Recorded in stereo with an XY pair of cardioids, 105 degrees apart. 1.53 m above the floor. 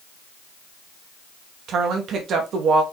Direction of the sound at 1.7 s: 65° right.